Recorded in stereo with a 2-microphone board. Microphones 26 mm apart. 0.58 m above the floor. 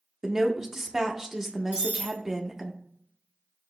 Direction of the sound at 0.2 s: 20° right (ahead or behind).